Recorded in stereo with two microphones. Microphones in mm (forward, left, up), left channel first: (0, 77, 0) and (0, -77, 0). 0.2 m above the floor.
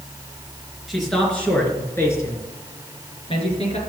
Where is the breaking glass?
No breaking glass in this recording.